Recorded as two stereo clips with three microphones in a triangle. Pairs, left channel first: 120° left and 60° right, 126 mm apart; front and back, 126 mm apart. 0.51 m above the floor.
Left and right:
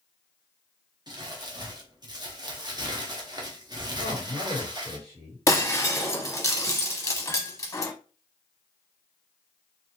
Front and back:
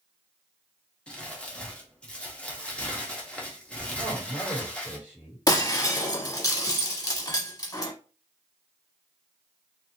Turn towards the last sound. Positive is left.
turn(degrees=55)